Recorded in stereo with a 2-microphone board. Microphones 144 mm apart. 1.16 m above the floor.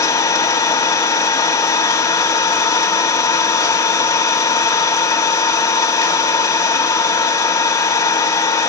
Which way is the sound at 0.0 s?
25° left (ahead or behind).